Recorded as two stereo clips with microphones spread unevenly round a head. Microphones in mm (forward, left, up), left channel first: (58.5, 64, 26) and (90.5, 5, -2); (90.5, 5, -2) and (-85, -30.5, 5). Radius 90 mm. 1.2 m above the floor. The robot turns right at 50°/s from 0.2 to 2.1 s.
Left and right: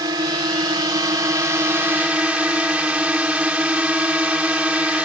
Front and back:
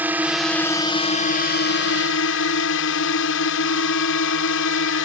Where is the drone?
85° right; by 5.1 s 10° left.